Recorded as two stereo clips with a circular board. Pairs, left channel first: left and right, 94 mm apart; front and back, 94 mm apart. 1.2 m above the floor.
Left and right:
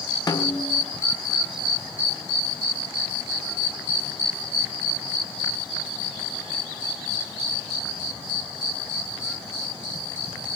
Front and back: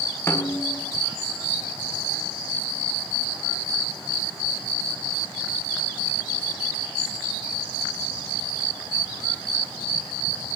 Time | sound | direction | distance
0.3 | a snare drum | 55° left | 1.2 m